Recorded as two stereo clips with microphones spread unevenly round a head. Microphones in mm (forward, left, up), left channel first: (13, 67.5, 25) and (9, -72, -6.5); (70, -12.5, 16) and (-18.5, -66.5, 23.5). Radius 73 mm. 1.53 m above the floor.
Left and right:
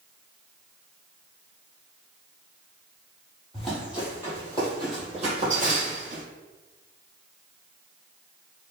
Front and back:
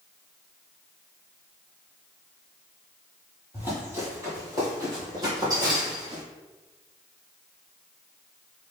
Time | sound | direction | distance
3.5 | running footsteps | 150° left | 1.8 m